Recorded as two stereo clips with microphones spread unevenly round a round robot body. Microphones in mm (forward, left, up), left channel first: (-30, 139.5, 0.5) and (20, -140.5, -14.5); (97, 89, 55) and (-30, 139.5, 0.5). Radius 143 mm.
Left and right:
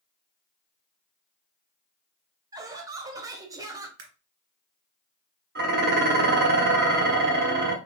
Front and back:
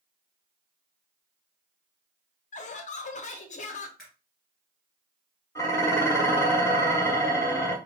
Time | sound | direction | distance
2.5 | laughter | 20° right | 0.7 m
4.0 | a camera shutter | 110° right | 1.8 m
5.5 | dishes clattering | 110° right | 0.8 m